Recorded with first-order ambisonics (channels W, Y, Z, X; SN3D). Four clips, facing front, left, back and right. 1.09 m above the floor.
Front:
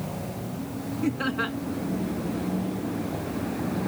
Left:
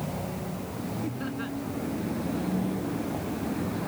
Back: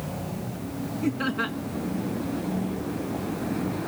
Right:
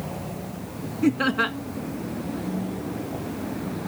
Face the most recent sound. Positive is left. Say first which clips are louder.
# right 17 dB, even
turn(degrees=-90)